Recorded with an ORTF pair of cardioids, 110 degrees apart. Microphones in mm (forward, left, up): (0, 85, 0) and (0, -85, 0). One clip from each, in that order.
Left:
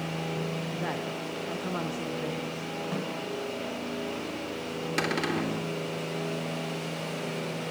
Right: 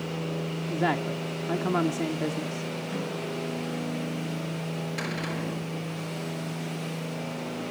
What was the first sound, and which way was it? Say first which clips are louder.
A woman speaking: right 5 dB; 40° right.